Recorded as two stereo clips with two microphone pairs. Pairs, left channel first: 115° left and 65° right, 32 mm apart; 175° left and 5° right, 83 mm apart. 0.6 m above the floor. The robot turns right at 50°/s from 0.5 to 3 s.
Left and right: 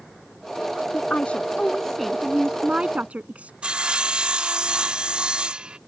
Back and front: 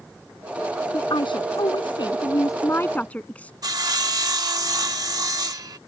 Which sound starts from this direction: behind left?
A woman speaking, at 0.9 s.